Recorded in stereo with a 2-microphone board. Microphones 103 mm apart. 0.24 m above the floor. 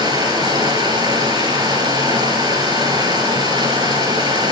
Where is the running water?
40° right (ahead or behind), 3 m.